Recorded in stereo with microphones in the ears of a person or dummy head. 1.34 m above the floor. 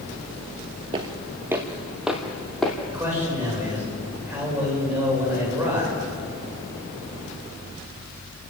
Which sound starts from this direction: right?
Footsteps, at 0.9 s.